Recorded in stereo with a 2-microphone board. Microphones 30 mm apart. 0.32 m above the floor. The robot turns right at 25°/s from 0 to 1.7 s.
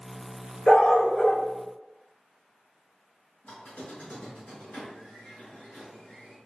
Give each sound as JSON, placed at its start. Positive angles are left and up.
{"t": 0.7, "sound": "a dog barking", "side_deg": 50, "distance_m": 1.3}
{"t": 3.4, "sound": "a squeak", "side_deg": 65, "distance_m": 1.9}